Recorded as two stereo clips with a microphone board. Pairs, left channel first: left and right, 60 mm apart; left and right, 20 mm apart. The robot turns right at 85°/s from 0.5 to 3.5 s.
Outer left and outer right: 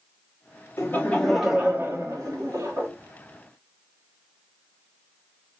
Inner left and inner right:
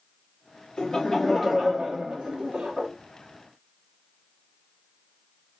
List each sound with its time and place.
0.8 s laughter: 125° left, 1.2 m; by 2.9 s 55° right, 1.2 m